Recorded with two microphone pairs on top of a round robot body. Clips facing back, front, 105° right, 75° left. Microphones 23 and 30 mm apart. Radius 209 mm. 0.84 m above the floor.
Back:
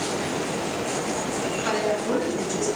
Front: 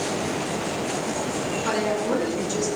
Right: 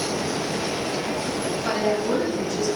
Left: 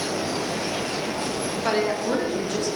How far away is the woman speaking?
About 1.3 m.